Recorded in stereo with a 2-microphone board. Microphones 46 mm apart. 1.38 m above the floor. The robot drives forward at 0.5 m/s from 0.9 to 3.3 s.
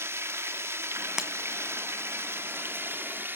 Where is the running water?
65° right (ahead or behind), 1.5 m; by 3.4 s 50° right (ahead or behind), 1.8 m.